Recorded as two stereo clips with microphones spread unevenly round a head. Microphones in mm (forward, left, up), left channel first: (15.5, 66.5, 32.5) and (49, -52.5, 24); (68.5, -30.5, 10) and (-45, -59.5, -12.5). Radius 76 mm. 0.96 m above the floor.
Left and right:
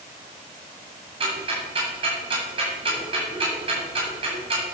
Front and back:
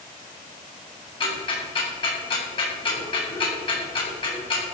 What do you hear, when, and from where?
1.2 s ticking: 30° right, 8.5 m